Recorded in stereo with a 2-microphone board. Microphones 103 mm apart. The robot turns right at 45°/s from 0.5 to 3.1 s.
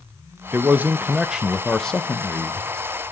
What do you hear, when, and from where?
0.5 s a man speaking: 20° right (ahead or behind), 0.5 m; by 2.7 s 20° left (ahead or behind), 0.5 m